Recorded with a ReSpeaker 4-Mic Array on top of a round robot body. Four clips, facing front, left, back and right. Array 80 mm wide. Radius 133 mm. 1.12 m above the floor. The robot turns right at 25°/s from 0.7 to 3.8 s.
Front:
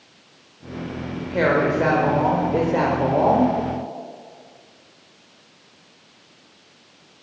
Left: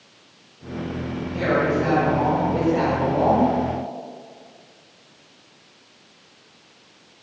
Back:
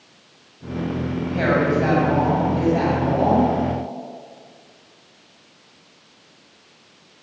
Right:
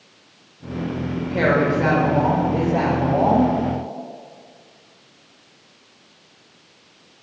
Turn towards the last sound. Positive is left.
turn(degrees=30)